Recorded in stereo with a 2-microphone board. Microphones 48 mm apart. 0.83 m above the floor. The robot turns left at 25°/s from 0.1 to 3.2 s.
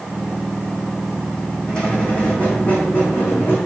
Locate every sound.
1.7 s a squeak: 160° left, 2.5 m; by 3.6 s 125° left, 2.5 m